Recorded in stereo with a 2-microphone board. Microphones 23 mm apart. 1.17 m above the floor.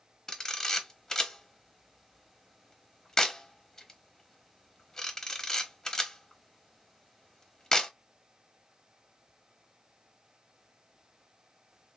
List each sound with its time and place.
0.3 s a camera shutter: 25° left (ahead or behind), 0.9 m